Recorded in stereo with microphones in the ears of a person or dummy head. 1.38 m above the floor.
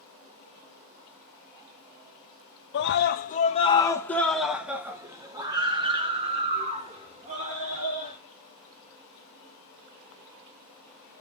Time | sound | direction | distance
2.7 | a scream | 65° left (ahead or behind) | 1.2 m